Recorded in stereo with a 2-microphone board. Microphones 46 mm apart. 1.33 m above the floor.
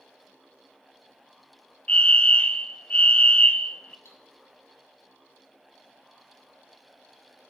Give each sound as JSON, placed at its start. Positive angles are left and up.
{"t": 1.9, "sound": "a fire alarm", "side_deg": 30, "distance_m": 0.8}
{"t": 4.0, "sound": "cutlery clinking", "side_deg": 75, "distance_m": 8.0}